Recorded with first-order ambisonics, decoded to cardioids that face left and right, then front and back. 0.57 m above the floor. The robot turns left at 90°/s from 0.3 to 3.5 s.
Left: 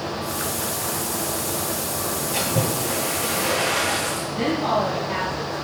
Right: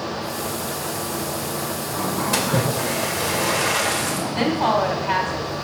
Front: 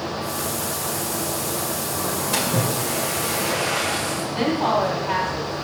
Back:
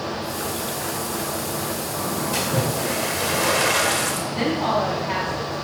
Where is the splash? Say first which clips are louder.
Right 2 dB, front 1 dB; 65° right, 2 m; by 4.2 s 170° right, 2 m.